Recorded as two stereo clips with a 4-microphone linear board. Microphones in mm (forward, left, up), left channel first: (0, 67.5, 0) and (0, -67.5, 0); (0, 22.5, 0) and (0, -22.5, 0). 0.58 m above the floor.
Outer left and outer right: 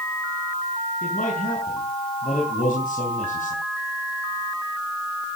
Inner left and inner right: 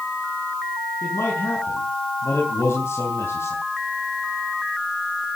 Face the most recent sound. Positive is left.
turn(degrees=75)  # may be behind; listen again after turning